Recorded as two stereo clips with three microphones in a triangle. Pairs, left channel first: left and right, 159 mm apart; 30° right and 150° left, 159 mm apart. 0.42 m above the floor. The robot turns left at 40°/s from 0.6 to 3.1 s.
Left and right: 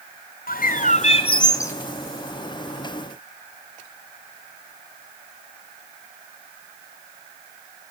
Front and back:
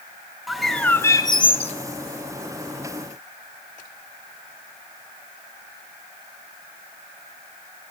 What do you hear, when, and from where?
0.5 s a bird: 60° left, 1.3 m; by 1.7 s 15° left, 1.3 m